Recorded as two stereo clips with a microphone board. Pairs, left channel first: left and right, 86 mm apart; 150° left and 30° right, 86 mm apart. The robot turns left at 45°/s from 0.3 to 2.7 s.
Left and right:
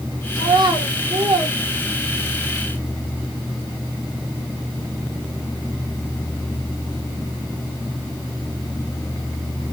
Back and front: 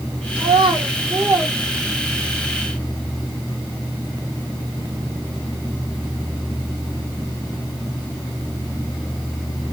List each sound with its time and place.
0.4 s a child speaking: 40° right, 1.8 m; by 2.5 s 135° right, 1.8 m